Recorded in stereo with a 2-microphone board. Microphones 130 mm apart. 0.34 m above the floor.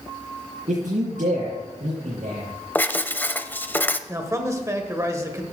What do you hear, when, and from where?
0.7 s a man speaking: 80° right, 5.5 m
2.8 s writing: 15° left (ahead or behind), 0.5 m
4.1 s a man speaking: 25° right (ahead or behind), 1.4 m